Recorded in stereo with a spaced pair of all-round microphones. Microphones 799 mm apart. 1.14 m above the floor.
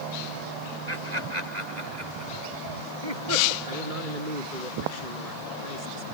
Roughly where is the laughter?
Right.